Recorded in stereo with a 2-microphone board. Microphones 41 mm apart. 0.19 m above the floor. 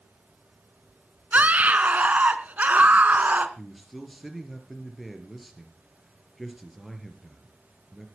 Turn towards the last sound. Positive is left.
turn(degrees=0)  # may be behind; listen again after turning